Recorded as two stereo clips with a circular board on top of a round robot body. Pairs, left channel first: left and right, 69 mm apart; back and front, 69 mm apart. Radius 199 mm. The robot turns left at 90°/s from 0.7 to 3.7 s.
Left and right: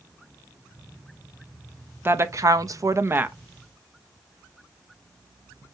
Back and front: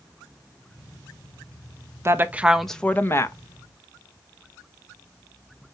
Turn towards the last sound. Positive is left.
turn(degrees=175)